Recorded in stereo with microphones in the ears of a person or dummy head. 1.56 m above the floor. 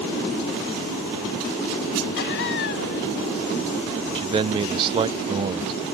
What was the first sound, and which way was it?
Laughter, 60° left (ahead or behind).